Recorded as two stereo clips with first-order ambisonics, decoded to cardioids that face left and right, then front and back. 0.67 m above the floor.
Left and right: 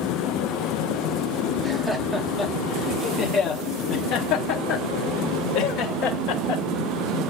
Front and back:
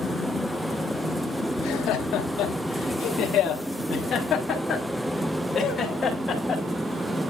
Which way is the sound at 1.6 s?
15° right.